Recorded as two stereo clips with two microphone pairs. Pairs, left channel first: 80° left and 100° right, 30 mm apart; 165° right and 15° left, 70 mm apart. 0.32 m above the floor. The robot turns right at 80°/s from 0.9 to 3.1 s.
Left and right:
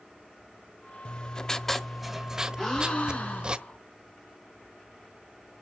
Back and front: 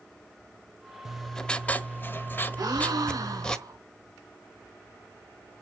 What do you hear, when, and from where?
1.1 s writing: 100° left, 0.9 m; by 3.6 s 95° right, 0.9 m
2.6 s a gasp: 5° right, 3 m; by 3.8 s 40° left, 3 m